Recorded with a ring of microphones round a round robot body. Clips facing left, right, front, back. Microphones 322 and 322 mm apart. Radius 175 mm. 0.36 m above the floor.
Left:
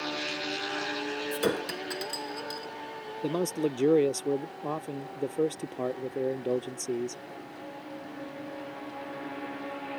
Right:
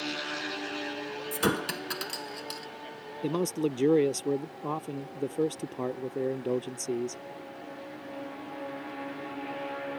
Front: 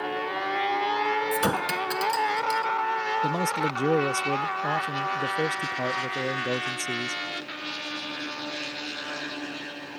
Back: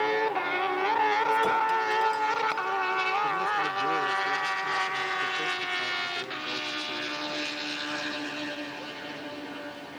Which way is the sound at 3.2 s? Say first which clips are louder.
Even, front 6 dB; 10° right.